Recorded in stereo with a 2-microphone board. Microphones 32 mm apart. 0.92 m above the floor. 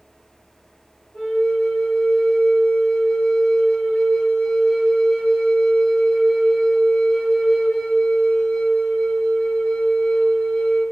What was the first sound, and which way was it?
A flute, 30° left (ahead or behind).